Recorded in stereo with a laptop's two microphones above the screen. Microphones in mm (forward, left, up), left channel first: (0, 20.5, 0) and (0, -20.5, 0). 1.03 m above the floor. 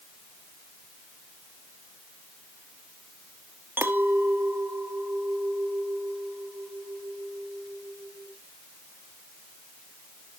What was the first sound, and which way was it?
A clink, 55° right (ahead or behind).